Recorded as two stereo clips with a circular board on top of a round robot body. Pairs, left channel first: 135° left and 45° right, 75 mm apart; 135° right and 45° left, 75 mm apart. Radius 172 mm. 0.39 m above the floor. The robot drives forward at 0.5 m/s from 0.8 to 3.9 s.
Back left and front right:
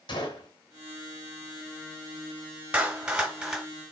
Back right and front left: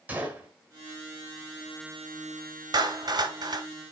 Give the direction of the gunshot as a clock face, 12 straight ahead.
8 o'clock.